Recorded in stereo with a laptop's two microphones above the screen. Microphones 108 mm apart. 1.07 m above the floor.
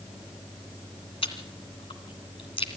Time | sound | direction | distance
1.2 | chewing | 65° left (ahead or behind) | 2.5 m